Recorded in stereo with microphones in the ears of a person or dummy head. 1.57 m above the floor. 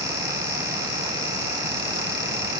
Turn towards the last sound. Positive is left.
No sound to turn to.